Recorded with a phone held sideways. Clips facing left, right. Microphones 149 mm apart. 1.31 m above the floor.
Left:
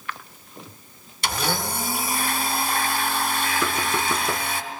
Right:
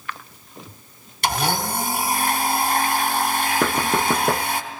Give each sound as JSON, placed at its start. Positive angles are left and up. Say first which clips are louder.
{"t": 1.2, "sound": "a blender", "louder": "right 4 dB", "side_deg": -60, "distance_m": 3.5}
{"t": 3.6, "sound": "knocking", "louder": "right 4 dB", "side_deg": -60, "distance_m": 1.0}